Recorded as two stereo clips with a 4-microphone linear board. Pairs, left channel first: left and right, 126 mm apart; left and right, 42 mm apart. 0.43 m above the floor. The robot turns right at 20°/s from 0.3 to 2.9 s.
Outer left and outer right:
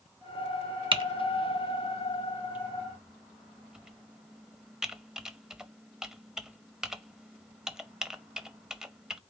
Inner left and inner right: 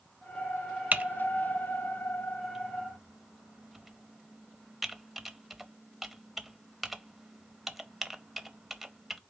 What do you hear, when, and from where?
0.9 s typing on a keyboard: 45° right (ahead or behind), 0.6 m; by 9.2 s 5° right (ahead or behind), 0.6 m